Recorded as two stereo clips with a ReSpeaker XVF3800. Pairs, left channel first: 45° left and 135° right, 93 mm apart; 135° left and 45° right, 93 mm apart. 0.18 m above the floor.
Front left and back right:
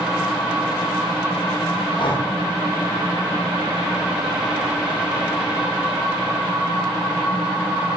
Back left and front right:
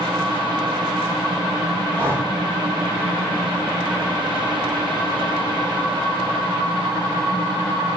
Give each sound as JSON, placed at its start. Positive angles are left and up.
{"t": 2.0, "sound": "breathing", "azimuth_deg": 5, "distance_m": 3.0}